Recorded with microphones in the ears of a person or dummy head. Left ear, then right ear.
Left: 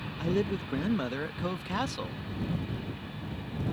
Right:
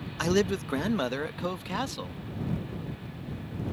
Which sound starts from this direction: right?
A man speaking, at 0.2 s.